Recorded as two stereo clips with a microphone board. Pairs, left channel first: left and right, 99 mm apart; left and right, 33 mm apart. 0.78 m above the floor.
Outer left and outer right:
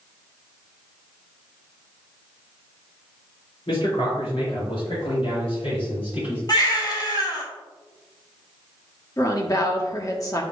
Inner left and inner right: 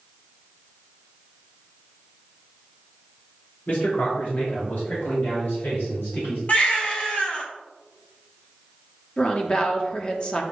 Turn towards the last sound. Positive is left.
turn(degrees=35)  # may be behind; listen again after turning